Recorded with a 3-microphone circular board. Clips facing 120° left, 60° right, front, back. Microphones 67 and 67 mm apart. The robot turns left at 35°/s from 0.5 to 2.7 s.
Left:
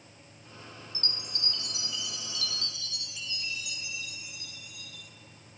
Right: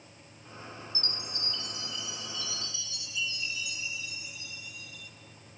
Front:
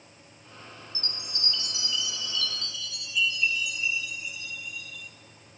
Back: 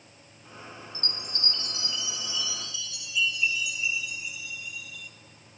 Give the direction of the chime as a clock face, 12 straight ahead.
7 o'clock.